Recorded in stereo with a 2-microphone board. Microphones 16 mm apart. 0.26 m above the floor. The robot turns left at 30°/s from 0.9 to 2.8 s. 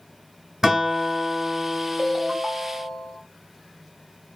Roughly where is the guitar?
Behind right.